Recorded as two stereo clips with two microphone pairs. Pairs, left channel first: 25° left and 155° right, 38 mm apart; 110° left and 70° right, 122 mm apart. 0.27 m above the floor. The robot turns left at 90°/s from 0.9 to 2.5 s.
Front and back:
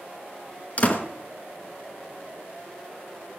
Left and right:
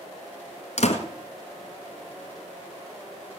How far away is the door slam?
About 1.9 m.